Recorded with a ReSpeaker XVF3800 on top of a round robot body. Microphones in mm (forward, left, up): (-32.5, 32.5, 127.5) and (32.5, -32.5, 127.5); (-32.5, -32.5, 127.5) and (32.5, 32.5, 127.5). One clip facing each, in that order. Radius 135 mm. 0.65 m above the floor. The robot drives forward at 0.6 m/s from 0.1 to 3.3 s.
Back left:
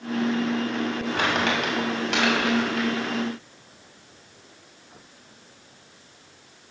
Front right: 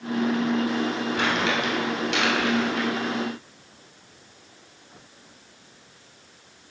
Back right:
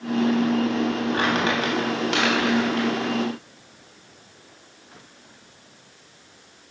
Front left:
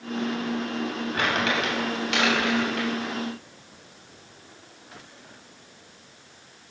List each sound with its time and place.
1.1 s crumpling: 170° left, 2 m; by 2.9 s 175° left, 3 m